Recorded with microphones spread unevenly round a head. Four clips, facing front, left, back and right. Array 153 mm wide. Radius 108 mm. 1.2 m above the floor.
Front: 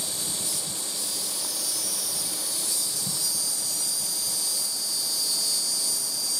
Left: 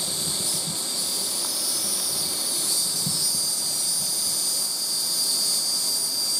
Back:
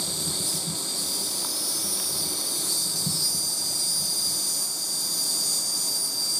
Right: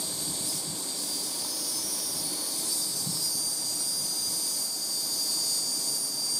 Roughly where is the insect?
Left.